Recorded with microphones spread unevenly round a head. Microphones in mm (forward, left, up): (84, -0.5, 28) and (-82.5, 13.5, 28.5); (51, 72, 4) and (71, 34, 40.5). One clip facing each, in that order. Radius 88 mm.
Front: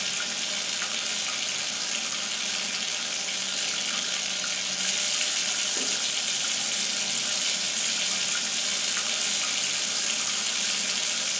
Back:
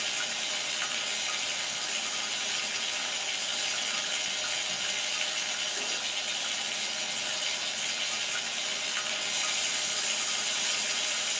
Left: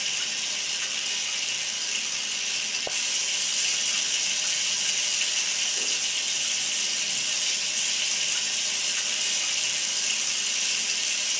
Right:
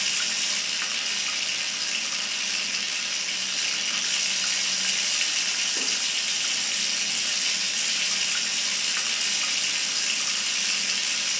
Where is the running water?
45° right, 1.7 m.